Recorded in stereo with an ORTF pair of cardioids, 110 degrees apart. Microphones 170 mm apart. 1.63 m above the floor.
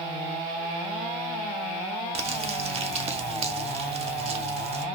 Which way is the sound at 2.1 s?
40° right.